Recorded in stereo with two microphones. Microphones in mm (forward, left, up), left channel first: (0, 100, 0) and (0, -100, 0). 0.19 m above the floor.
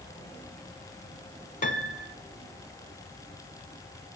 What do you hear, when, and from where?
1.6 s a piano: 40° left (ahead or behind), 0.6 m